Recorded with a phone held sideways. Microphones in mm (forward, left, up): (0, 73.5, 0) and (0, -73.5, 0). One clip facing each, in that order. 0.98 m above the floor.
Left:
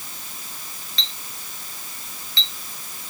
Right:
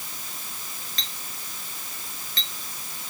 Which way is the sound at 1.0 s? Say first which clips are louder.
Left 1 dB; 45° right (ahead or behind).